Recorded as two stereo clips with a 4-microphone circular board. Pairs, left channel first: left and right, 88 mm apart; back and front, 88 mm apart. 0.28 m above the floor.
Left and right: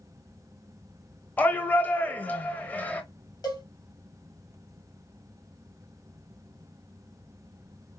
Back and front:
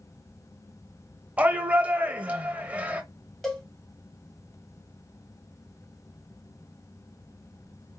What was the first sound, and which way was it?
A shout, 50° left.